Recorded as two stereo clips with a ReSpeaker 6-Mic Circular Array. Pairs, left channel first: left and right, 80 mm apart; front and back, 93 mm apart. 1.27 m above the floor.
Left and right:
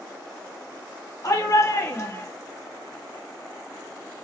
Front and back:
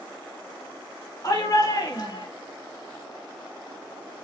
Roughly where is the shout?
Ahead left.